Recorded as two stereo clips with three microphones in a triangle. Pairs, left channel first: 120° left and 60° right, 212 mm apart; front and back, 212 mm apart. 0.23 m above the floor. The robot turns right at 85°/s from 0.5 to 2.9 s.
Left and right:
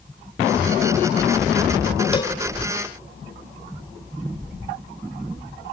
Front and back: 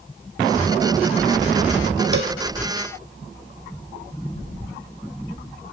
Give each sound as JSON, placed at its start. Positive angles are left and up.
{"t": 2.1, "sound": "a cowbell", "azimuth_deg": 180, "distance_m": 0.7}